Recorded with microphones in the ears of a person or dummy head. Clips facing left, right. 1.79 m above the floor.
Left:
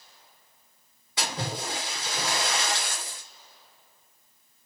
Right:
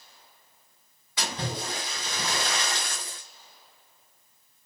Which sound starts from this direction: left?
A splash, at 1.2 s.